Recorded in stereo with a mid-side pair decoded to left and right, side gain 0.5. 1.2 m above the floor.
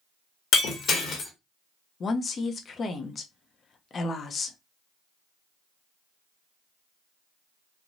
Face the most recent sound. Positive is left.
turn(degrees=40)